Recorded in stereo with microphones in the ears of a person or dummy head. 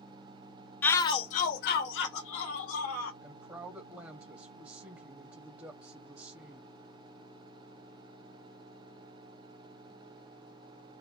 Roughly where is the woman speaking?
Centre.